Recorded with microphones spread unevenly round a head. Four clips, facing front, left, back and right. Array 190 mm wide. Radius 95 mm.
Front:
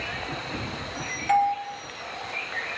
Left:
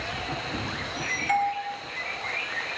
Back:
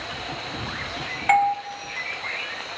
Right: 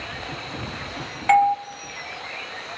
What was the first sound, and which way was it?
A doorbell, 125° right.